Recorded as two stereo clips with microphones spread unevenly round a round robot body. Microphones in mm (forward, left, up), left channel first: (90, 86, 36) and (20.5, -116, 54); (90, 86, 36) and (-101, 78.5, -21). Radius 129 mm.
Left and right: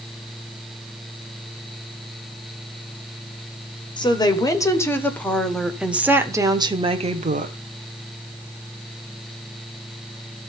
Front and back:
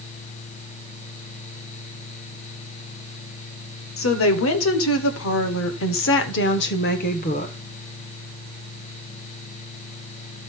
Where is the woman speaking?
5° left, 2 m; by 7.5 s 65° right, 1.4 m.